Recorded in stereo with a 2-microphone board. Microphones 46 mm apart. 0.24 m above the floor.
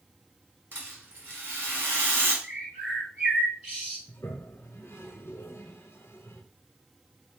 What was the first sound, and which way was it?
A rattle, 50° right (ahead or behind).